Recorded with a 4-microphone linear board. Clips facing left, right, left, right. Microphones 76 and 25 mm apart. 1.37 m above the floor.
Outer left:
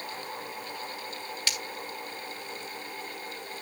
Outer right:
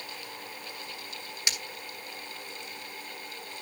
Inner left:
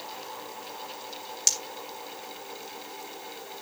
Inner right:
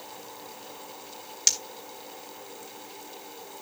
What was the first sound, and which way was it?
Breaking glass, 20° right (ahead or behind).